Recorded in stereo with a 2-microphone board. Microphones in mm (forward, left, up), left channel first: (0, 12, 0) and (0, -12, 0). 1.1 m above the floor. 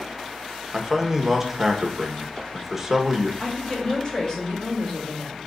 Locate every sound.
0.7 s a man speaking: 15° right (ahead or behind), 1.3 m
3.4 s a woman speaking: 30° left (ahead or behind), 3 m